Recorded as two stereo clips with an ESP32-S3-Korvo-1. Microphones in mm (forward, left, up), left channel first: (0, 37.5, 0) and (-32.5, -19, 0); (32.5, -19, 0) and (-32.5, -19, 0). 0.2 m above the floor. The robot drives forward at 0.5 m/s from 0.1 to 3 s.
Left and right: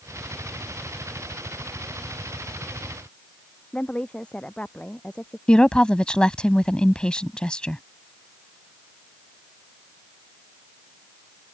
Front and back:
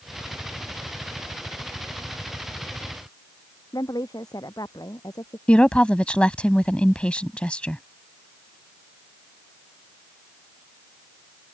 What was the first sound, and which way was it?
A woman speaking, 15° right.